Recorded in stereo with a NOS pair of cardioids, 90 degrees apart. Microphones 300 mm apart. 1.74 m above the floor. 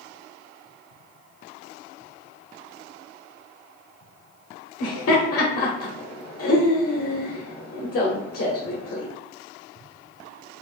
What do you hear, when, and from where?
4.8 s laughter: 50° left, 1.1 m